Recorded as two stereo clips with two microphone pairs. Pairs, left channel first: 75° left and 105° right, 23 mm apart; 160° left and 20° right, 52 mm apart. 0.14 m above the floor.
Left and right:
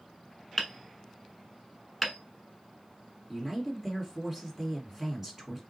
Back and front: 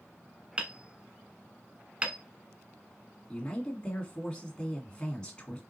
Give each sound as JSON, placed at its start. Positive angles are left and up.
{"t": 0.6, "sound": "hammering", "azimuth_deg": 5, "distance_m": 0.8}
{"t": 3.3, "sound": "a man speaking", "azimuth_deg": -155, "distance_m": 1.7}